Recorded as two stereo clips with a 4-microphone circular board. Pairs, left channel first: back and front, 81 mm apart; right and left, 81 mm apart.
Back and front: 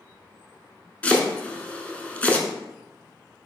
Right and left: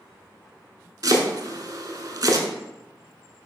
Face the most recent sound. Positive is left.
turn(degrees=110)